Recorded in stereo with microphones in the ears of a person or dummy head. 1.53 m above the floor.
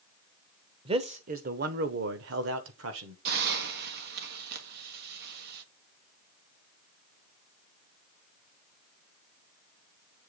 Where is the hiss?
60° right (ahead or behind), 1.3 m.